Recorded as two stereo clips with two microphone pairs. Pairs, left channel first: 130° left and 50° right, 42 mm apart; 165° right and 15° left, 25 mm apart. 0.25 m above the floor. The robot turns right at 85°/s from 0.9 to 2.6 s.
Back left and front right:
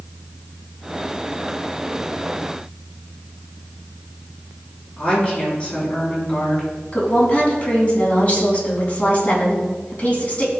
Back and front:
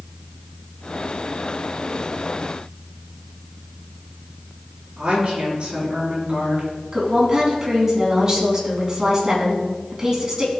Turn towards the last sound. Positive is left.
turn(degrees=85)